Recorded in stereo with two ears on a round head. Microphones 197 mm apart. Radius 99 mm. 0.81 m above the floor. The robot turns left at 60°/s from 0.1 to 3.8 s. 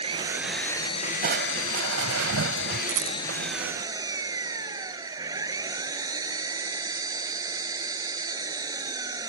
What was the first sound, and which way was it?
An engine running, 155° right.